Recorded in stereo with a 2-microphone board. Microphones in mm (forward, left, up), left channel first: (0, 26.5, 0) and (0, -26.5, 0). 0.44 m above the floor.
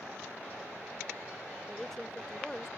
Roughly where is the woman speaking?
Centre.